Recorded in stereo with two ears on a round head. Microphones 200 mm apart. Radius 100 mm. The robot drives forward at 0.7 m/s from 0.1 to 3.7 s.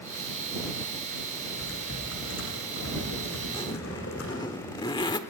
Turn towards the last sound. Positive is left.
turn(degrees=20)  # may be behind; listen again after turning